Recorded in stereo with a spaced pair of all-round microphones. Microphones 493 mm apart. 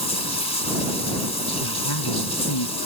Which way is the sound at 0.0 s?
50° left (ahead or behind).